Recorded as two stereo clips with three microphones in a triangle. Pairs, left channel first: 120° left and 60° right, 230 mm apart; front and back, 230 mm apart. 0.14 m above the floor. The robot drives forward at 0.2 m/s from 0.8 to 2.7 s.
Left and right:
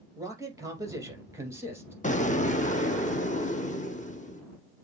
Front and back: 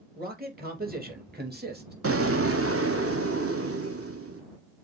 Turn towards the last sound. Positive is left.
turn(degrees=175)